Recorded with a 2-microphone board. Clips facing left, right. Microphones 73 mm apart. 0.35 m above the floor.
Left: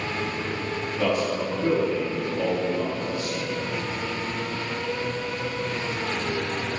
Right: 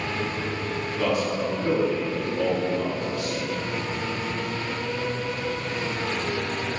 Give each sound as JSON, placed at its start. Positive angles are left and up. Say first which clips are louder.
{"t": 1.0, "sound": "a man speaking", "louder": "even", "side_deg": 45, "distance_m": 2.5}